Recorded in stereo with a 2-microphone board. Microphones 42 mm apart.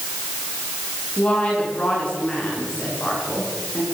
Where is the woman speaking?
30° left (ahead or behind), 9.5 m.